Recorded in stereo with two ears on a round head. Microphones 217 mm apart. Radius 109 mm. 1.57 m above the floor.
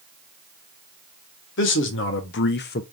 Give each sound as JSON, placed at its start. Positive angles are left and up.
{"t": 1.6, "sound": "a man speaking", "side_deg": 55, "distance_m": 1.2}